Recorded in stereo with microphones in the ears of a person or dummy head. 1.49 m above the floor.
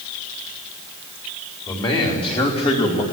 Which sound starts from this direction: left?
A man speaking, at 1.7 s.